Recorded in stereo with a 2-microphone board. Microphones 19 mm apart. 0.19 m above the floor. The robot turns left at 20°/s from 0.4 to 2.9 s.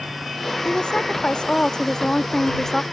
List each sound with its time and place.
0.7 s a woman speaking: 70° left; by 2.8 s 25° left